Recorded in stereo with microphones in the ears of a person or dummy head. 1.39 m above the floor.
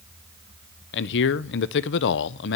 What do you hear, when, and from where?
0.9 s a man speaking: 65° left (ahead or behind), 0.6 m